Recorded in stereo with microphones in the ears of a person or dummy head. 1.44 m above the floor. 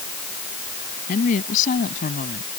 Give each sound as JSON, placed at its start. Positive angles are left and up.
{"t": 1.1, "sound": "a woman speaking", "side_deg": 40}